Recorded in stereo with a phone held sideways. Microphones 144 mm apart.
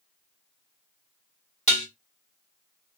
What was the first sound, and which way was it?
Dishes clattering, 55° left (ahead or behind).